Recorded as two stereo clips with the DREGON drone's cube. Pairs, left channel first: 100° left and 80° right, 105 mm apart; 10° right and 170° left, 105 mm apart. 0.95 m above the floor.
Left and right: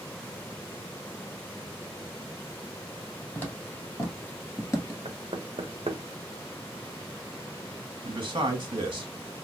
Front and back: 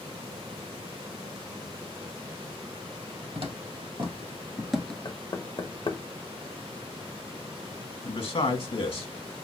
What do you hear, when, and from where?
3.4 s footsteps: 175° left, 1.9 m; by 5.0 s 60° left, 1.1 m
5.0 s knocking: 55° right, 0.8 m
8.0 s a man speaking: 35° right, 1.5 m